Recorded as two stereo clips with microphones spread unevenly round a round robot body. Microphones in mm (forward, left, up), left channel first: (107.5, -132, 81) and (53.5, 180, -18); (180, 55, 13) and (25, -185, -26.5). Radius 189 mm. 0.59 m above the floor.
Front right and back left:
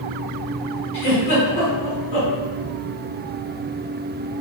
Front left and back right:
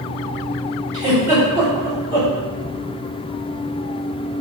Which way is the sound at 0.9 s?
55° right.